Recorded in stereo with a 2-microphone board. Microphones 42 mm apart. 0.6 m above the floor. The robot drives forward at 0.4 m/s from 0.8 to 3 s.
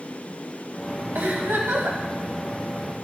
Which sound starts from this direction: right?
A giggle, at 1.1 s.